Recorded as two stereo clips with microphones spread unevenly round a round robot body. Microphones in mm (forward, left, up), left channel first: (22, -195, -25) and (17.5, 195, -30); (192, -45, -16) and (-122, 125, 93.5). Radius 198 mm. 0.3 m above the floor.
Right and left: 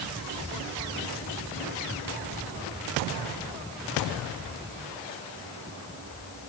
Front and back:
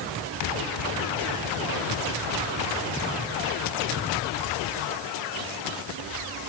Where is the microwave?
I don't hear a microwave.